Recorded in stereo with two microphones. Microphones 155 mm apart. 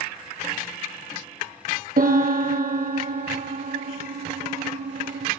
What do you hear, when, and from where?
2.0 s a piano: 65° right (ahead or behind), 1.2 m